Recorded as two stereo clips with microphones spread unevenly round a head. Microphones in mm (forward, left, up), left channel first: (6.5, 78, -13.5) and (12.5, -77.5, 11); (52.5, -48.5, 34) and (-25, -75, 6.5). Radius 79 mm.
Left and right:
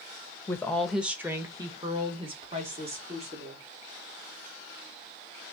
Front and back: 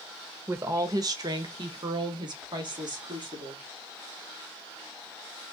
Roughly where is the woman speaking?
Behind.